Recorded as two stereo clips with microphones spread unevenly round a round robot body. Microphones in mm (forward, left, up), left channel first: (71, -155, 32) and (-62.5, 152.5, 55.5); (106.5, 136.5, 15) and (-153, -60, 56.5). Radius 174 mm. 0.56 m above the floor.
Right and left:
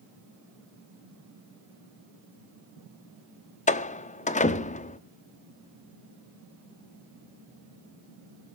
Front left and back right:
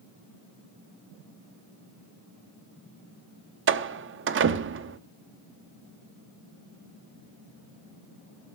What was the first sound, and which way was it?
A door slam, 110° right.